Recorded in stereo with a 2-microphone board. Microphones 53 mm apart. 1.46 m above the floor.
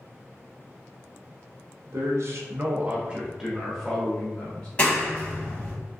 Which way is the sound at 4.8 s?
25° left (ahead or behind).